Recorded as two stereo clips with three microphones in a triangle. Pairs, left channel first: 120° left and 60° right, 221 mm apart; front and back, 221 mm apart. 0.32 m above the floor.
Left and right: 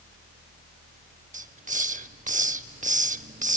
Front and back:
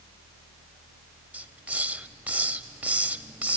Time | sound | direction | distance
1.3 | a hiss | 100° right | 0.5 m